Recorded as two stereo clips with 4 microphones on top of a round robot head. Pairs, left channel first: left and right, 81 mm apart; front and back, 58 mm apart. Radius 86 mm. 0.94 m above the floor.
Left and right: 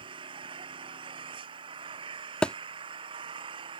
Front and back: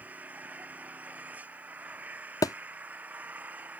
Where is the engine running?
110° right.